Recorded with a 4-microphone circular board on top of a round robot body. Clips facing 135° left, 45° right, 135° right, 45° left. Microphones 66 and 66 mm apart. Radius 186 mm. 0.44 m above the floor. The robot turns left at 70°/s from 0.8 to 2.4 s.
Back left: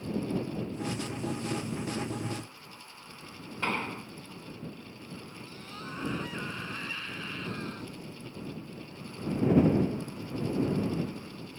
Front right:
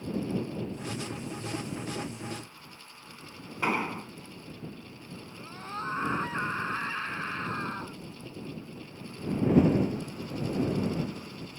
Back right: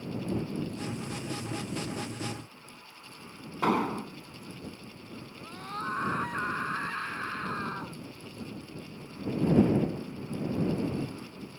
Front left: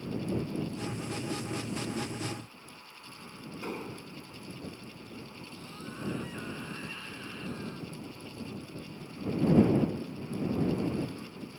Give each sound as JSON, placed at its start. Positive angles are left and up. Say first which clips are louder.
{"t": 3.6, "sound": "an explosion", "louder": "front right 3 dB, back right 13 dB", "azimuth_deg": -125}
{"t": 5.4, "sound": "a scream", "louder": "front right 6 dB, back right 7 dB", "azimuth_deg": -100}